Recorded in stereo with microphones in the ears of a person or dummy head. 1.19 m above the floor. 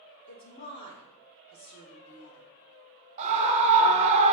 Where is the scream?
30° right (ahead or behind), 0.7 m.